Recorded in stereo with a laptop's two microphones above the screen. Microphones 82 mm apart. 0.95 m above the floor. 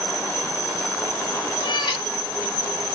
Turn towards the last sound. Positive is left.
turn(degrees=65)  # may be behind; listen again after turning